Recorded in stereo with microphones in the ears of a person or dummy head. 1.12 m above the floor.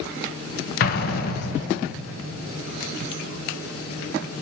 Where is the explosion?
50° left (ahead or behind), 1.1 m.